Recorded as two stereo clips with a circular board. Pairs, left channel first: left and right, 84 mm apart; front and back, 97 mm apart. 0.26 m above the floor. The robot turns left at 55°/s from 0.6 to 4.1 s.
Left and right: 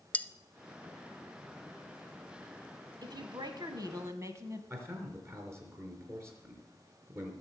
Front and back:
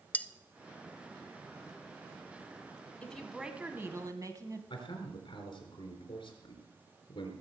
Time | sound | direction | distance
0.1 | cutlery clinking | 50° left | 0.6 m
3.0 | a woman speaking | 75° right | 1.7 m
4.7 | a man speaking | 30° right | 4 m